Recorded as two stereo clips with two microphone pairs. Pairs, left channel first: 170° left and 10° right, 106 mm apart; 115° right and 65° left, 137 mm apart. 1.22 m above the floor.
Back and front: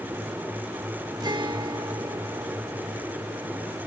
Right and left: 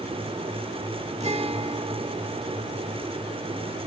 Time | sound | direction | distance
1.2 | a guitar | 30° left | 1.5 m